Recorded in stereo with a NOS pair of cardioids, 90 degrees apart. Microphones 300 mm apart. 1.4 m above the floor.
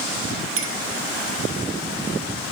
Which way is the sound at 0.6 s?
50° right.